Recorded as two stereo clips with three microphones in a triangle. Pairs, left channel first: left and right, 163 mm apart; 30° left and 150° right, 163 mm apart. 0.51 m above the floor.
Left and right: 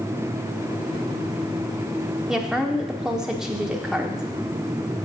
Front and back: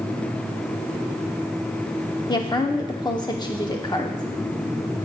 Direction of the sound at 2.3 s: 10° right.